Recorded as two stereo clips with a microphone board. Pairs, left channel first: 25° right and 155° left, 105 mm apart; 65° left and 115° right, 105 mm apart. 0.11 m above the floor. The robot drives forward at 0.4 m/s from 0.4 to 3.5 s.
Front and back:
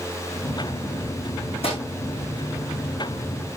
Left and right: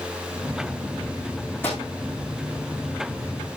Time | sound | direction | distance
1.6 | a microwave | straight ahead | 7.5 m